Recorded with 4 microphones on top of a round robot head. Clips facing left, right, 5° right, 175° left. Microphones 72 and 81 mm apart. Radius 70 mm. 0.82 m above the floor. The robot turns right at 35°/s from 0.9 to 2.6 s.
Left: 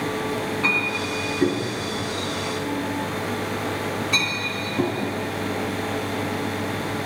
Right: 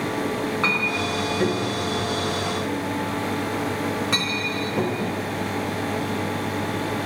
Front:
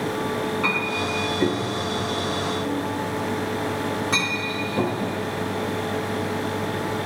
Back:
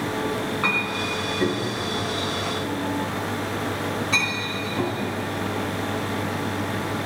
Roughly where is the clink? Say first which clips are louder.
Right 1 dB, front 1 dB; behind right.